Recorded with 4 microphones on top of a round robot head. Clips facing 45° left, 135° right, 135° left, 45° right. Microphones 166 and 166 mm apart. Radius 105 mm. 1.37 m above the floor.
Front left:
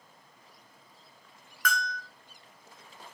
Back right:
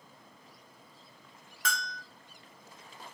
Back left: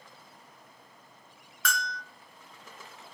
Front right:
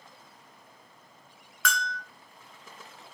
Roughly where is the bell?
Ahead right.